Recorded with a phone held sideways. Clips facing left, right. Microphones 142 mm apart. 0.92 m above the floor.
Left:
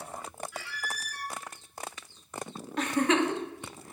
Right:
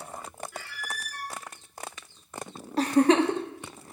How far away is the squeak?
About 0.9 m.